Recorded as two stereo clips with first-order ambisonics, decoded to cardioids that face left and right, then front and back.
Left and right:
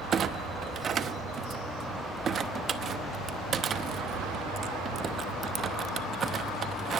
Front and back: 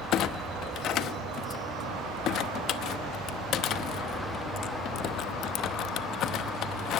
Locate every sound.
0.1 s a clunk: 35° right, 0.8 m